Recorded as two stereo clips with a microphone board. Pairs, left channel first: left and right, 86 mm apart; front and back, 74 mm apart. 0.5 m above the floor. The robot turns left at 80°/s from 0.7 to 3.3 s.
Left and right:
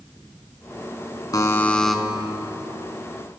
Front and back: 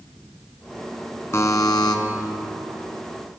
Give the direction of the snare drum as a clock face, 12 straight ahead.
No snare drum in this recording.